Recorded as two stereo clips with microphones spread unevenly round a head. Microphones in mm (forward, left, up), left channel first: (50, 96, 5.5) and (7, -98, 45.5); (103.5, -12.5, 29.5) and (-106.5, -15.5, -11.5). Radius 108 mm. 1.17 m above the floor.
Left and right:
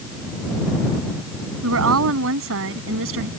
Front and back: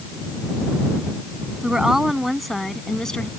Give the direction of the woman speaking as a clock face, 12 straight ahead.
3 o'clock.